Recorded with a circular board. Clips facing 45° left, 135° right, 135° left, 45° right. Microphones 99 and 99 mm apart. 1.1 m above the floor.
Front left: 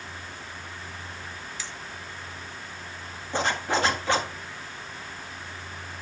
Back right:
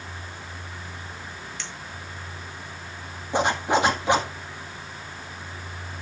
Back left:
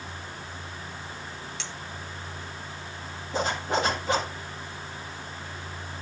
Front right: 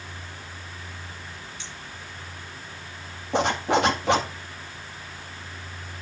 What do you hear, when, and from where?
1.6 s a clink: 125° left, 1.7 m
3.3 s a zipper: 60° right, 1.8 m